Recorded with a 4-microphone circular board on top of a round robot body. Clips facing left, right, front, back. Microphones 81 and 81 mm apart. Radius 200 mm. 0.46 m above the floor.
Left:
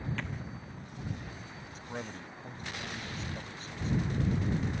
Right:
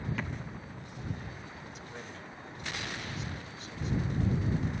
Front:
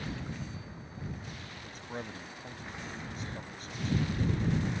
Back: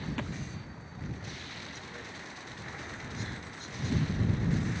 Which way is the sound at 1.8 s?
40° left.